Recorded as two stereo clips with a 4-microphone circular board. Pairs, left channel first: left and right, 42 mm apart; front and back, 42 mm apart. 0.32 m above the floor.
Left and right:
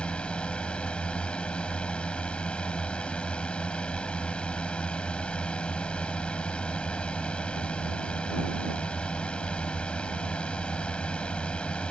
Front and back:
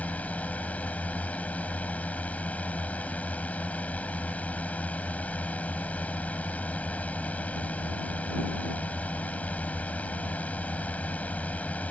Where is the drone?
35° left.